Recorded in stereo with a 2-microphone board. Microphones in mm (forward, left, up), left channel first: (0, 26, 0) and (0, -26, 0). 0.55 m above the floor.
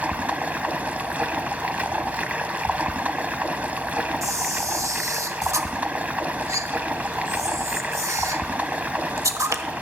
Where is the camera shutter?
80° right, 1.0 m.